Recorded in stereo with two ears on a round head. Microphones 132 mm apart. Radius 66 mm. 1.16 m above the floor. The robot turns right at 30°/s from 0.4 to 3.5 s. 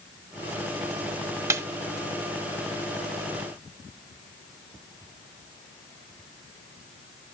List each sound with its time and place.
1.5 s a snare drum: 20° right (ahead or behind), 1.0 m